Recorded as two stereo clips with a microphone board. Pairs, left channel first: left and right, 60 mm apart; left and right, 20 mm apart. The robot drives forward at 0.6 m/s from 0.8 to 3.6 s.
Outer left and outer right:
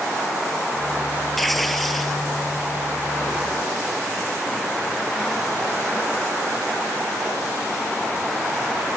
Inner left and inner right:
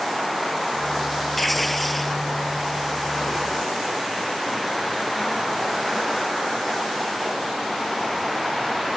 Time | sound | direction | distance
1.4 | tearing paper | 5° left (ahead or behind) | ?